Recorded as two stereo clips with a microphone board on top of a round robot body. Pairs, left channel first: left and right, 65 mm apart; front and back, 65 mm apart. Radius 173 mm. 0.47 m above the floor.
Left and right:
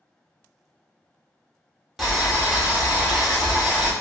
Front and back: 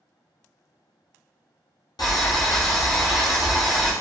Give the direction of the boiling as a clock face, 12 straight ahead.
12 o'clock.